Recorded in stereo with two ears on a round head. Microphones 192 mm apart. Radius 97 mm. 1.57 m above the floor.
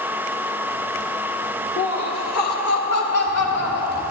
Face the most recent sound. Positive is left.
turn(degrees=80)